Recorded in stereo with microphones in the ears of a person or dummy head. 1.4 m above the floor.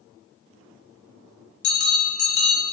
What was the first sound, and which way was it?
A bell, 55° left (ahead or behind).